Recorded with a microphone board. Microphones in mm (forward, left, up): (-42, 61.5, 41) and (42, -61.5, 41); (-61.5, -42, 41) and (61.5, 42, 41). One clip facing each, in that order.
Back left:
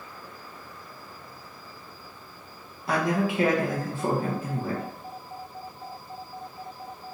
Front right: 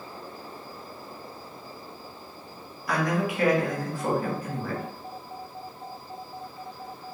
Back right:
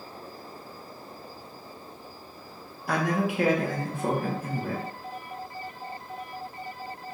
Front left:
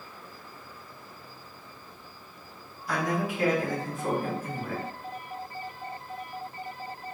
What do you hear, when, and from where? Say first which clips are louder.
2.9 s a man speaking: back left 1 dB, back right 3 dB; 170° right, 1.3 m